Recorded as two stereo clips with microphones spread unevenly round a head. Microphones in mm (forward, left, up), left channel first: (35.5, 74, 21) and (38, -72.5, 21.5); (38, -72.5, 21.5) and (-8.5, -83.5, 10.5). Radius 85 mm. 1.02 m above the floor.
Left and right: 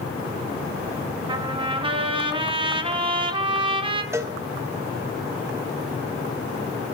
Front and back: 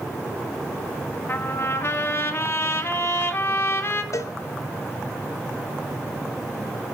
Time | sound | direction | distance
1.3 | a trumpet | 30° right | 1.7 m
4.1 | a cowbell | 15° right | 1.4 m